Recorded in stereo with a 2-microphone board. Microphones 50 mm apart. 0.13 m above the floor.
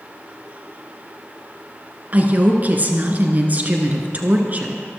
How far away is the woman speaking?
About 2 m.